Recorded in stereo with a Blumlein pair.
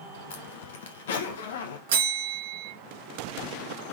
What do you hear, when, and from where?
0.3 s a zipper: 60° left, 0.9 m
1.9 s a bell: 55° right, 1.7 m